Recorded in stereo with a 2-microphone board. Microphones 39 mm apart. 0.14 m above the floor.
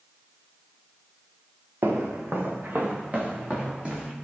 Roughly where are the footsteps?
Right.